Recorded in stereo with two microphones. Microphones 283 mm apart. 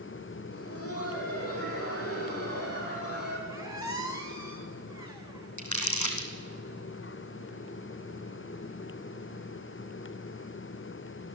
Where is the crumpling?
85° left, 3 m.